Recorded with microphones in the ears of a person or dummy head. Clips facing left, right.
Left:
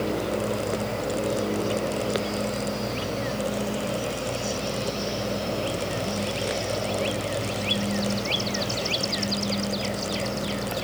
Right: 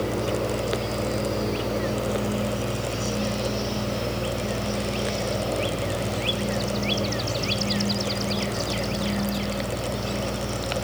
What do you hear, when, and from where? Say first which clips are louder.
0.0 s a fan: right 1 dB; 85° right, 5 m